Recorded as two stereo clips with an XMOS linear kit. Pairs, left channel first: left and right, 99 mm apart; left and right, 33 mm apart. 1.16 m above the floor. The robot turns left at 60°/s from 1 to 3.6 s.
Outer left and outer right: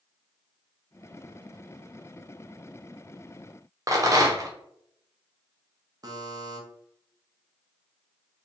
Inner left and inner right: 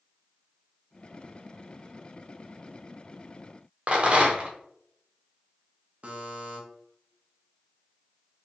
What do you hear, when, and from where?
3.9 s a rattle: 35° right (ahead or behind), 0.7 m
6.0 s a buzzer: 40° right (ahead or behind), 0.9 m